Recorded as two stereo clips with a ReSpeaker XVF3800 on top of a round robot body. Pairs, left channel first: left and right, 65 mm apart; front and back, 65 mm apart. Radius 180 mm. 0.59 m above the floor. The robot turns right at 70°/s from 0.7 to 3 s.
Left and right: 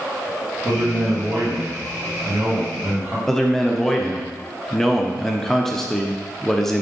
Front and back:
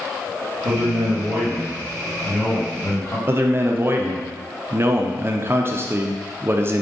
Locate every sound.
0.7 s a man speaking: 160° left, 1.5 m; by 3.2 s 40° right, 1.5 m
3.3 s a man speaking: 170° left, 0.6 m